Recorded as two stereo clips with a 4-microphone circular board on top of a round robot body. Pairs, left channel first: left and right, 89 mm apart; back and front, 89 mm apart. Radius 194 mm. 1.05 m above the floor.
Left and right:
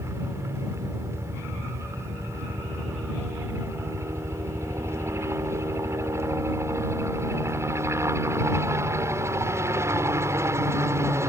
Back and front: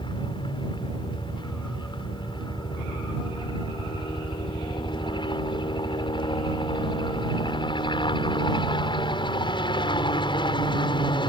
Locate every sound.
0.0 s a helicopter: 150° right